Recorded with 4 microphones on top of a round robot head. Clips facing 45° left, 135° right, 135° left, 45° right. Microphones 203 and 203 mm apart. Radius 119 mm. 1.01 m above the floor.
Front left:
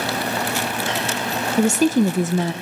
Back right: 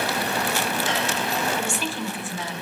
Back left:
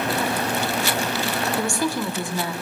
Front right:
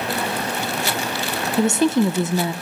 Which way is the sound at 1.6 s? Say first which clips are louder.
Front left 13 dB, front right 12 dB; 15° left.